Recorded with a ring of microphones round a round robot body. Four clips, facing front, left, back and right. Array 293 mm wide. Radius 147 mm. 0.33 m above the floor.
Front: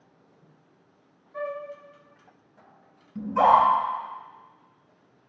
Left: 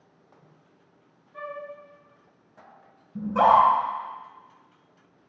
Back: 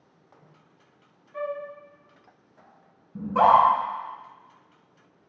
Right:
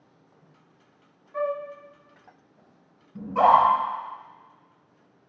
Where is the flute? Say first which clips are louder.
Right 9 dB, back 1 dB; 95° right, 0.6 m.